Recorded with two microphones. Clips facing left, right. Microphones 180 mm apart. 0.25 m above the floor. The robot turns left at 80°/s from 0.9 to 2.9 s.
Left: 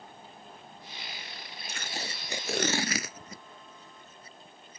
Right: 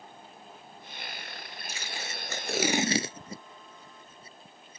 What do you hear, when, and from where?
1.7 s tape being pulled: 65° left (ahead or behind); by 4.8 s 30° right (ahead or behind)